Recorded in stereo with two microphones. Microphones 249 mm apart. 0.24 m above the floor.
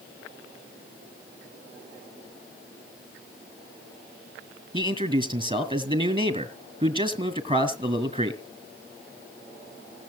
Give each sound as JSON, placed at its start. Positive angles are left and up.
{"t": 4.7, "sound": "a man speaking", "side_deg": -20, "distance_m": 2.0}